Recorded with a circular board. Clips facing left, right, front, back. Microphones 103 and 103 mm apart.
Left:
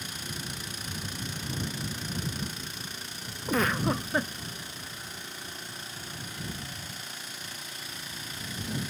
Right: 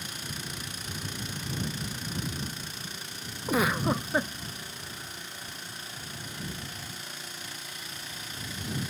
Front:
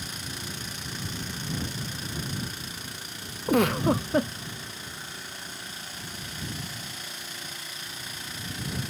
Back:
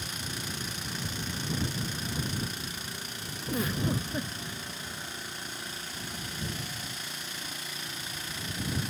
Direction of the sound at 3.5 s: 10° right.